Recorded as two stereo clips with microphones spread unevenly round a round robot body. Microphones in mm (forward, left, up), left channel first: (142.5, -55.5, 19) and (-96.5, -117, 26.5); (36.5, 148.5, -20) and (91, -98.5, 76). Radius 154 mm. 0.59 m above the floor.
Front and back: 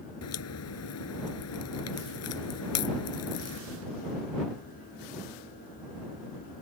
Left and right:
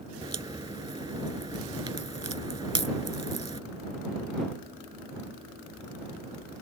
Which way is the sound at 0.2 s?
5° right.